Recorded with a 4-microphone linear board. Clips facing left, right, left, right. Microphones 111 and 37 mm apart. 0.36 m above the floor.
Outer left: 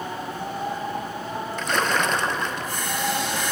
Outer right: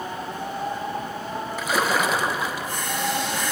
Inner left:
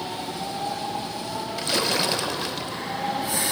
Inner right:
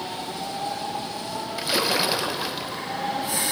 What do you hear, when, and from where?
1.6 s a splash: 5° right (ahead or behind), 0.6 m